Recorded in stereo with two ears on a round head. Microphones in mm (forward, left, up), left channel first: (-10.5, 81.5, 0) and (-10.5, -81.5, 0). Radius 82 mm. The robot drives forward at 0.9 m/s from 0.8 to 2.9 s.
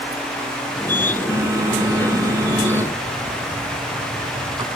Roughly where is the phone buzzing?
Centre.